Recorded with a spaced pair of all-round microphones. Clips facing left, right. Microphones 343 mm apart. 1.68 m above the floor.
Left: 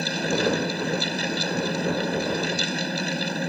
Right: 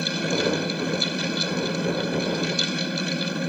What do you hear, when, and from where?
0.0 s a fan: 5° right (ahead or behind)